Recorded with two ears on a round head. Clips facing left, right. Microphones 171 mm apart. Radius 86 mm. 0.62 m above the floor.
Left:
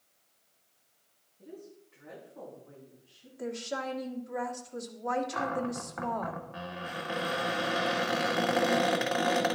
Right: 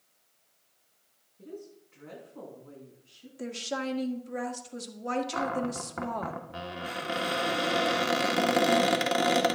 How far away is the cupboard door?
About 1.5 m.